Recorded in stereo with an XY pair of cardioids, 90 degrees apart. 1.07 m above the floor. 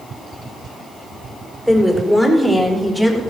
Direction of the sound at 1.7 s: 5° left.